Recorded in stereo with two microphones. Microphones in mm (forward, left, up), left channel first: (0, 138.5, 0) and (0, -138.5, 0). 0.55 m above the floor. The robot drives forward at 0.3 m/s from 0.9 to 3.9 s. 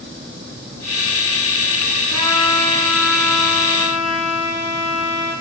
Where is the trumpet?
85° left, 6 m.